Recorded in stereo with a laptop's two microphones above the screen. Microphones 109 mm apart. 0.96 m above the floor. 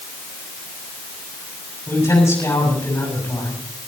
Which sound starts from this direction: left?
A man speaking, at 1.9 s.